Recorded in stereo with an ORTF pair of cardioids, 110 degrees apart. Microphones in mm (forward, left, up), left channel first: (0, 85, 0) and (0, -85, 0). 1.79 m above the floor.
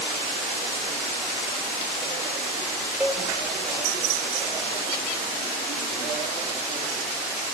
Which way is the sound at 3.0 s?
10° right.